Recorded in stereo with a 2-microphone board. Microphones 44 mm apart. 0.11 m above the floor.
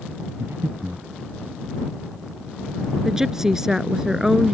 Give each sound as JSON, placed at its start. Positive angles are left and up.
{"t": 0.4, "sound": "breathing", "side_deg": -75}
{"t": 3.0, "sound": "a woman speaking", "side_deg": -15}